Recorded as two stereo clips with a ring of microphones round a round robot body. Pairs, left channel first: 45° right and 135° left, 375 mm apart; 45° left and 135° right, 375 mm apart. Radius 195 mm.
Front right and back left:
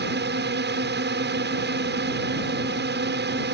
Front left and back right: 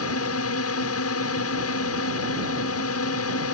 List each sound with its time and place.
0.0 s a drone: 80° left